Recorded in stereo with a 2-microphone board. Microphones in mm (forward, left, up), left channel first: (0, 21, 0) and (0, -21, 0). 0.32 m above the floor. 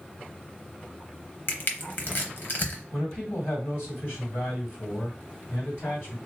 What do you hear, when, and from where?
1.5 s crushing: 55° left (ahead or behind), 0.8 m
2.9 s a man speaking: 55° left (ahead or behind), 2 m